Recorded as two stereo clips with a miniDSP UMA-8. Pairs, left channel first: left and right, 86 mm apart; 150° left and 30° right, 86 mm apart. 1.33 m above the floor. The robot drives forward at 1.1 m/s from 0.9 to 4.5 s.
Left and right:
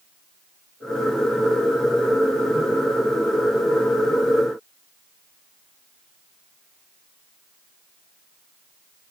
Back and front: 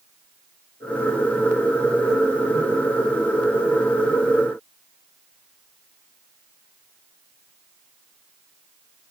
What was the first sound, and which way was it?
Only background noise.